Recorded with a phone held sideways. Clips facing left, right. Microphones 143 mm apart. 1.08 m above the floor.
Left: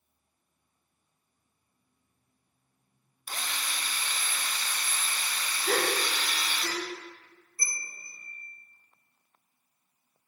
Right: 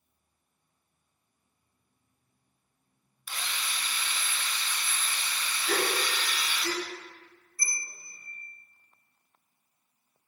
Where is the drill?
40° left (ahead or behind), 0.5 m.